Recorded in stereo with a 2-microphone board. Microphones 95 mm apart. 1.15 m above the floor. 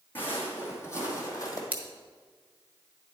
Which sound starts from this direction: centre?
Scissors, at 1.7 s.